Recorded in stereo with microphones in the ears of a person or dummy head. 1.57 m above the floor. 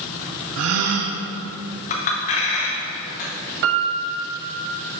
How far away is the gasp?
About 0.6 m.